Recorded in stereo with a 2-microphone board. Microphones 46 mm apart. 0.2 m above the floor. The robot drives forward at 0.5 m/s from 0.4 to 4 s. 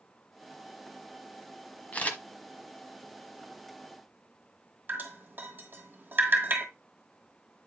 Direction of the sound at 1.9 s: 35° left (ahead or behind).